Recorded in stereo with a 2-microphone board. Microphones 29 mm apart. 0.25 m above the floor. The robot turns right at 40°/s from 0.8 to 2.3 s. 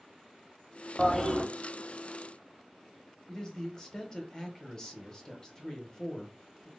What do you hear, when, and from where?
1.0 s a toilet flushing: 15° left (ahead or behind), 0.6 m; by 1.4 s 20° left (ahead or behind), 0.6 m
3.3 s a man speaking: 20° left (ahead or behind), 1.0 m